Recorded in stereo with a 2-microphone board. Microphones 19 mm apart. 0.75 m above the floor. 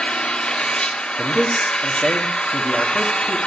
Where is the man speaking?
10° right (ahead or behind), 1.3 m.